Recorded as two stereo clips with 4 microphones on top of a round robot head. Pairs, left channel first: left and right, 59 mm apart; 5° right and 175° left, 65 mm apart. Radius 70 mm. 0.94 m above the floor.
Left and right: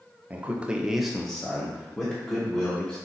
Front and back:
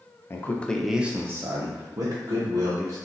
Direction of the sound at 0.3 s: 35° right.